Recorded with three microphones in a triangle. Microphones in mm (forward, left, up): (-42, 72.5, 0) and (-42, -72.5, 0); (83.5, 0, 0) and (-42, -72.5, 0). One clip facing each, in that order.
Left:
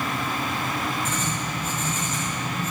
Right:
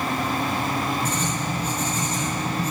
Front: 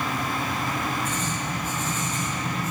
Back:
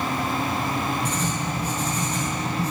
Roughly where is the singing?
I don't hear singing.